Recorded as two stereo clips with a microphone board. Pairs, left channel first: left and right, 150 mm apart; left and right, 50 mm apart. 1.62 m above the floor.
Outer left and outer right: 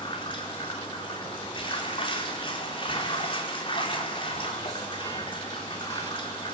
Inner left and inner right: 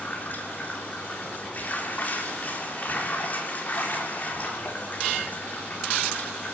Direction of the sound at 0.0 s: 35° left (ahead or behind).